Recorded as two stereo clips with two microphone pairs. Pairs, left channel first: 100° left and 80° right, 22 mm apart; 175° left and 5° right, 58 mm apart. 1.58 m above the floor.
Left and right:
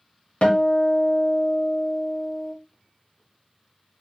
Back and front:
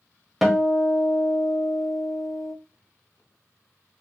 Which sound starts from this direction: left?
A guitar, at 0.4 s.